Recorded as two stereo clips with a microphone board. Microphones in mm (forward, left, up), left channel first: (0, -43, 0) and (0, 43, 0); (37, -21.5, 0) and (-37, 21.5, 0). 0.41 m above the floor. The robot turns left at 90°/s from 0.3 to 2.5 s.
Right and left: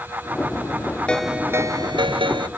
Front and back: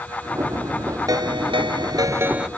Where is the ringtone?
170° right; by 2.5 s 65° left.